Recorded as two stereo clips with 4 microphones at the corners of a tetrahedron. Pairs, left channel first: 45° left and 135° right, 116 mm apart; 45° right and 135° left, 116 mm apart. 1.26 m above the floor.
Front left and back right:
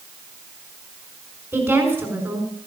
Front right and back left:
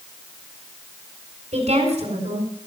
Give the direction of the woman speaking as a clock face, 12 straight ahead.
7 o'clock.